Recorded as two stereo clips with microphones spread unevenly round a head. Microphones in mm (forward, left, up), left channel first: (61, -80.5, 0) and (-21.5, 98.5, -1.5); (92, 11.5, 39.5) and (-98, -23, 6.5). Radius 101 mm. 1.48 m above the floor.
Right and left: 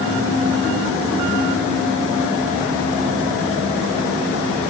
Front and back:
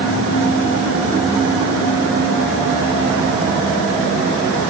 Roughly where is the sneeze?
No sneeze in this recording.